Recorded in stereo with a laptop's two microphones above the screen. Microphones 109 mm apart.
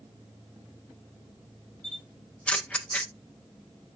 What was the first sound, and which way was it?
A camera shutter, 10° left (ahead or behind).